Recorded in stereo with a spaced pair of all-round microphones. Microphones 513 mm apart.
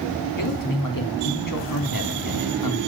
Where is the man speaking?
40° left (ahead or behind), 3.5 m.